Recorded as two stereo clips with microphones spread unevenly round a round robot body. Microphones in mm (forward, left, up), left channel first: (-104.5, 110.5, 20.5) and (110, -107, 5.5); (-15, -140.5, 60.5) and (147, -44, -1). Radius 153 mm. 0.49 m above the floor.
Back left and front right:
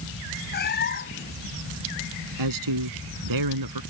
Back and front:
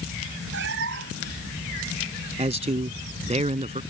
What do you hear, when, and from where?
0.5 s a cat meowing: 75° left
2.4 s a man speaking: 25° right